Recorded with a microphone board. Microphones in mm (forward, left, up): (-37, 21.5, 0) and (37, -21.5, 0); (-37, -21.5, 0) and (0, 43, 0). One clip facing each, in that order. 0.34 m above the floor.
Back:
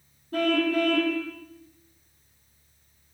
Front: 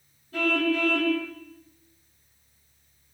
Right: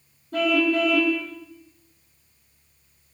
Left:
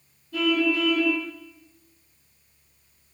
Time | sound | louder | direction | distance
0.3 | a car horn | back 2 dB, right 2 dB | 165° right | 5.5 m